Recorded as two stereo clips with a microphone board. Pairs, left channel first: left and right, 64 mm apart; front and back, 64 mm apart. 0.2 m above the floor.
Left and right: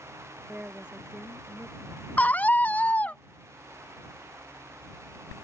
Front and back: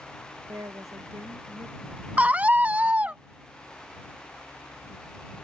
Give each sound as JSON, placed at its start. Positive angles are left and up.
{"t": 0.5, "sound": "a woman speaking", "azimuth_deg": -155}
{"t": 2.2, "sound": "a scream", "azimuth_deg": 135}